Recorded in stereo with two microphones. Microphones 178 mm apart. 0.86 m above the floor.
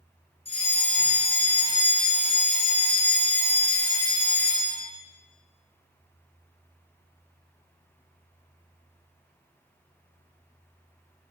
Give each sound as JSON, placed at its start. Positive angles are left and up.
{"t": 0.5, "sound": "a fire alarm", "side_deg": 35, "distance_m": 4.0}